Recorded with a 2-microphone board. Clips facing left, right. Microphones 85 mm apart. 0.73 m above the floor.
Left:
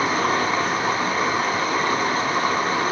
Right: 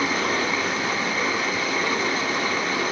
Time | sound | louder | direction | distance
0.0 | running water | left 3 dB | 45° left (ahead or behind) | 3 m